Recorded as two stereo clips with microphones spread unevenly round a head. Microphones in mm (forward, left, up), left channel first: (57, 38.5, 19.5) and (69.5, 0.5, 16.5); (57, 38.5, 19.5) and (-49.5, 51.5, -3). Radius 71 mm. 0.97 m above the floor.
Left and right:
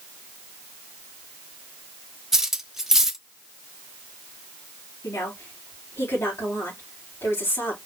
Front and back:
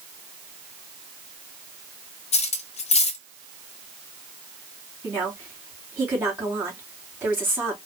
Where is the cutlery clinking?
5° left, 0.7 m.